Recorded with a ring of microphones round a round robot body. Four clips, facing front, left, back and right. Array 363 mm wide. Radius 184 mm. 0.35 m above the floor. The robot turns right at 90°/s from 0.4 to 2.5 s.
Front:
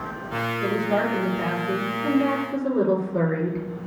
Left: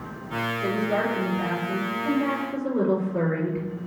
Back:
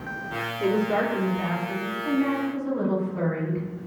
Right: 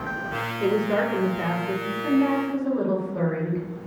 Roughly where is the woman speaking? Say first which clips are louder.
Right 4 dB, back 1 dB; behind right.